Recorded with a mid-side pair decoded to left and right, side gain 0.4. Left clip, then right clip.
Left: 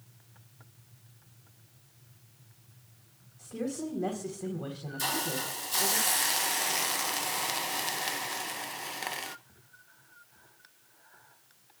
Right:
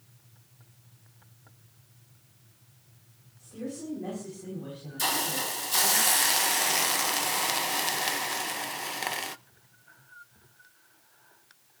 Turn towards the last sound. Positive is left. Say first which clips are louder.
# right 3 dB
turn(degrees=-30)